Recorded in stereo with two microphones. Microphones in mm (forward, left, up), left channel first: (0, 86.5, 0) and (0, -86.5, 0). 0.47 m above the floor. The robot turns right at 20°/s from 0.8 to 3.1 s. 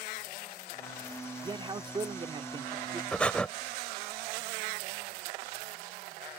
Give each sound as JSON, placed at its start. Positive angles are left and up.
{"t": 1.4, "sound": "a man speaking", "side_deg": -25}
{"t": 3.1, "sound": "breathing", "side_deg": 5}